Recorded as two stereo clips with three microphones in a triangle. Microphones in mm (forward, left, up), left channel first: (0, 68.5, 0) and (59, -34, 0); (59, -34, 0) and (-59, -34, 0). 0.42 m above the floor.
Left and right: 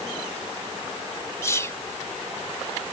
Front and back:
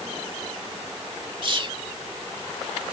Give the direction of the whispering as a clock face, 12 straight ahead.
6 o'clock.